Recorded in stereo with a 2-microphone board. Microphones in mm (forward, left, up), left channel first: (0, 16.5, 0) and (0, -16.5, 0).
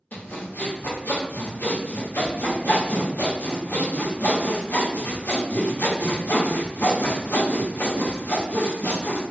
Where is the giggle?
I don't hear a giggle.